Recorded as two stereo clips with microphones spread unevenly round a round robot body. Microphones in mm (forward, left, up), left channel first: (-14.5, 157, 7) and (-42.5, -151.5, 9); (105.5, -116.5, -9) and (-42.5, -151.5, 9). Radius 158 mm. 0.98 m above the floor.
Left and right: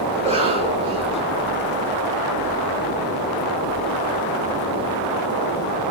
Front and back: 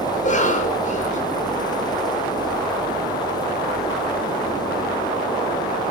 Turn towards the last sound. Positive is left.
turn(degrees=-20)